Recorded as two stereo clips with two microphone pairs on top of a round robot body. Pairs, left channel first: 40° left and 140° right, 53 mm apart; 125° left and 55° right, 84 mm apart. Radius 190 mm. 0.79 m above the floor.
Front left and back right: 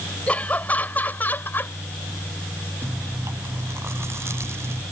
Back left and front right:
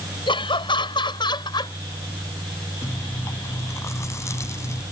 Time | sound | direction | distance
0.3 | laughter | 105° left | ?
2.8 | chewing | straight behind | ?